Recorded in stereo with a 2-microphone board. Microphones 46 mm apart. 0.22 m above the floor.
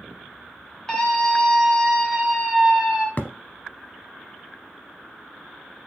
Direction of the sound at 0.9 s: 20° left (ahead or behind).